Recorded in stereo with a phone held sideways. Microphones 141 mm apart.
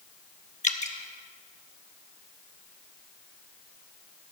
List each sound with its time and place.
0.6 s dripping: 55° left (ahead or behind), 1.0 m